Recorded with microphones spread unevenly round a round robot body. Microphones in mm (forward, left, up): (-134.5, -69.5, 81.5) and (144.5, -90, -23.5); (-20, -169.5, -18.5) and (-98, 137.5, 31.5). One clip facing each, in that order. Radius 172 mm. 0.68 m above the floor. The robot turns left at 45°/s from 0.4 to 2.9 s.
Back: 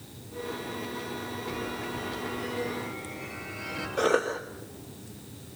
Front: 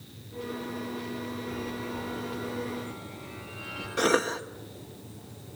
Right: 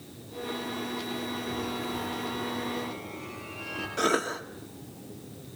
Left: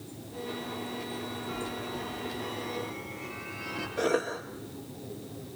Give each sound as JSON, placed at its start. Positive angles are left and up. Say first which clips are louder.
{"t": 1.5, "sound": "a chime", "louder": "even, right 3 dB", "azimuth_deg": -105, "distance_m": 10.0}
{"t": 4.0, "sound": "a cough", "louder": "even, even", "azimuth_deg": -30, "distance_m": 1.1}